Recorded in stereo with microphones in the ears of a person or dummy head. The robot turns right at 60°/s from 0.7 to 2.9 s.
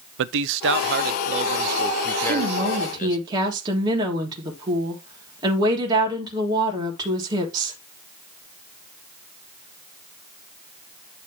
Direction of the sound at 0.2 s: 80° right.